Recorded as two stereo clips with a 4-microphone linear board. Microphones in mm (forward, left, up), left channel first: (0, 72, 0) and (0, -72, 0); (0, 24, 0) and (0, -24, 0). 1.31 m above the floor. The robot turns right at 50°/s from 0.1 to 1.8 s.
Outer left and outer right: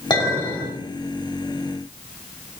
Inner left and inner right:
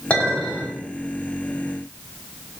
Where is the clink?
145° left, 2.5 m; by 0.7 s straight behind, 2.5 m.